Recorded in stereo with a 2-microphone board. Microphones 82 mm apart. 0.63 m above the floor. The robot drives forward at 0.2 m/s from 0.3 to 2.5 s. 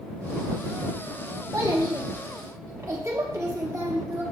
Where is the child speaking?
40° right (ahead or behind), 0.7 m; by 4.2 s 35° right (ahead or behind), 0.8 m.